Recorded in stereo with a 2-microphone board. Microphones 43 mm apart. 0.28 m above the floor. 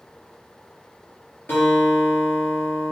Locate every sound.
1.5 s a guitar: 60° left (ahead or behind), 4 m